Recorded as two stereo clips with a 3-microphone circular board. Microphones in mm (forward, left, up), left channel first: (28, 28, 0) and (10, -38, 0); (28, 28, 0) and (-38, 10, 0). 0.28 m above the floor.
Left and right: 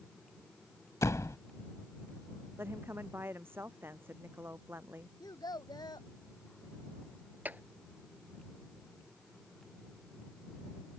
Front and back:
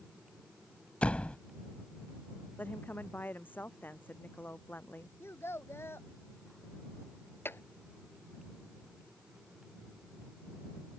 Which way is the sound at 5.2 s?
65° left.